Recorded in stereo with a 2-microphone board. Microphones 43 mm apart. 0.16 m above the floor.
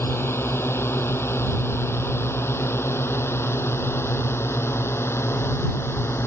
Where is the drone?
75° left (ahead or behind).